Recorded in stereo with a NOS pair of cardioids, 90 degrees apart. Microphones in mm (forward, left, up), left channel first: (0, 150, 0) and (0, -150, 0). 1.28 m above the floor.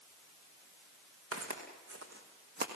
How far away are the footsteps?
About 5 m.